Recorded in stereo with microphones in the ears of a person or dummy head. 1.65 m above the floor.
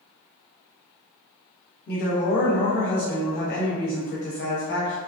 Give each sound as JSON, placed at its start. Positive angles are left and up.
{"t": 1.9, "sound": "a woman speaking", "side_deg": 50, "distance_m": 0.8}